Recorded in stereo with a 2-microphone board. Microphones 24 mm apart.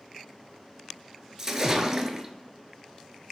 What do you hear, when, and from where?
1.4 s a splash: 15° right (ahead or behind), 0.5 m